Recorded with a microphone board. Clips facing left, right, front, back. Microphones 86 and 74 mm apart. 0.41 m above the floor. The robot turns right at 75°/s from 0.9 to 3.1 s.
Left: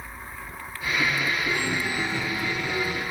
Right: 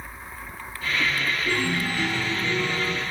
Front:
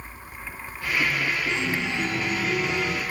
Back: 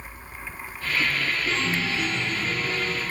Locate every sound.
1.5 s a chime: 100° right, 3 m; by 3.0 s 15° left, 3 m